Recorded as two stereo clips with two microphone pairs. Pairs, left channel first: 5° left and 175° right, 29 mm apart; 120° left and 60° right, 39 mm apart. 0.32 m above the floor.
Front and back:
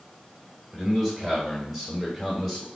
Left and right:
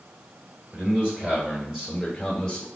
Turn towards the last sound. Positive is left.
turn(degrees=70)